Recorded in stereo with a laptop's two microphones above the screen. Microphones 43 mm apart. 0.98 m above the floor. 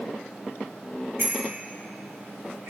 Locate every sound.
1.2 s a bicycle bell: 85° right, 4 m